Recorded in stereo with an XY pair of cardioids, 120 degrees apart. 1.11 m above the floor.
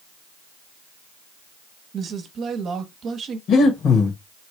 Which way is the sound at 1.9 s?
50° right.